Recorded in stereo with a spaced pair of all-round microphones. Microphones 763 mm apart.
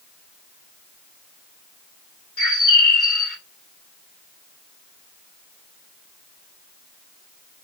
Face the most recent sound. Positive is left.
turn(degrees=45)  # may be behind; listen again after turning